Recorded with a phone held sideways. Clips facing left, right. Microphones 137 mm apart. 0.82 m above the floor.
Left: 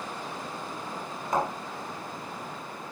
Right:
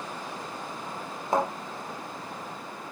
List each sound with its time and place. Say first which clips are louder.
1.3 s a thud: right 2 dB; 30° right (ahead or behind), 3.5 m